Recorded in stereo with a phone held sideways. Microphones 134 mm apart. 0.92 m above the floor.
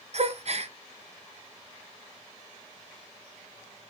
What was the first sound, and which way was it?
A gasp, 50° right (ahead or behind).